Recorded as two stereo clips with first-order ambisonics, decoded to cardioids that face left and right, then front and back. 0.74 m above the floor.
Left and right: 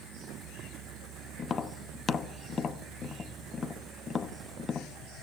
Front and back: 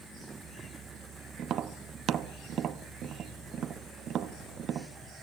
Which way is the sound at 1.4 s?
145° left.